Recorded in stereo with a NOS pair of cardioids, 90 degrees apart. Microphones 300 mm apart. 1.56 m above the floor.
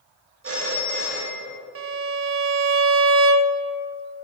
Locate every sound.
0.4 s a phone ringing: 50° right, 2 m
1.8 s a violin: 50° right, 0.6 m